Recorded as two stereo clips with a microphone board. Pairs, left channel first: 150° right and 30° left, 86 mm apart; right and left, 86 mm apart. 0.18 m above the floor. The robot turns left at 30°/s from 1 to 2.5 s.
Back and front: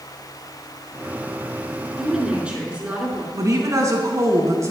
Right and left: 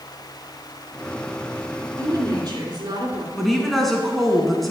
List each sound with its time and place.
2.0 s a woman speaking: 120° left, 2.5 m; by 3.2 s 105° left, 2.5 m
3.3 s a woman speaking: straight ahead, 1.6 m